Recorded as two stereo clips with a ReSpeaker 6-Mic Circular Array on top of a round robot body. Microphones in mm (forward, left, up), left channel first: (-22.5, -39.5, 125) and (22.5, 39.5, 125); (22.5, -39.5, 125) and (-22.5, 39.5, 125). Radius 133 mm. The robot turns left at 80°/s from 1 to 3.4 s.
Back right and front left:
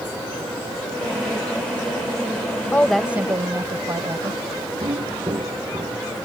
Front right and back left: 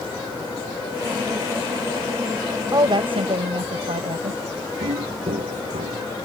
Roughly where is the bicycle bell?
No bicycle bell in this recording.